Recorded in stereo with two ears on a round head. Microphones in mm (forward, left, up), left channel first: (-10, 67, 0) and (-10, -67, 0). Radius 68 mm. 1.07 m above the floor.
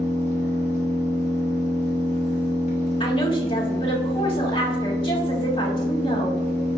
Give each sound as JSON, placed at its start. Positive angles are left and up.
{"t": 0.0, "sound": "an engine running", "side_deg": 45, "distance_m": 1.0}
{"t": 3.0, "sound": "a woman speaking", "side_deg": 35, "distance_m": 1.6}